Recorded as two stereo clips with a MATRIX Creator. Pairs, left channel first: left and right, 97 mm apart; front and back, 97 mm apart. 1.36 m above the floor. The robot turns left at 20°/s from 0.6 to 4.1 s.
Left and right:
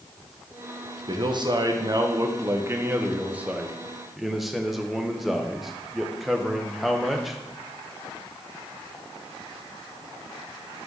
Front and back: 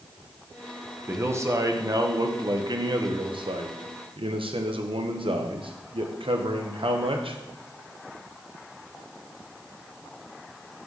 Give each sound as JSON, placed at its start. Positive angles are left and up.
{"t": 1.1, "sound": "a man speaking", "azimuth_deg": -115, "distance_m": 0.8}